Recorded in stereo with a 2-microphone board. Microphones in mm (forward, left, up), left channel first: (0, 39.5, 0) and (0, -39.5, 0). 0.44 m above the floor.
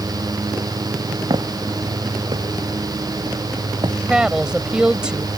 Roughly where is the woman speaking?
Centre.